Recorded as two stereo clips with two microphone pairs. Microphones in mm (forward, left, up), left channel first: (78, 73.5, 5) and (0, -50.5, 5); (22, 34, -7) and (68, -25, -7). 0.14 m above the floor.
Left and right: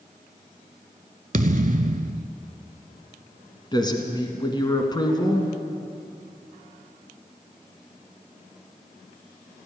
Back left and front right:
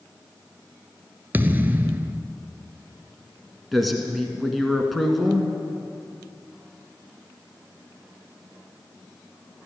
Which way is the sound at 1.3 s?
110° right.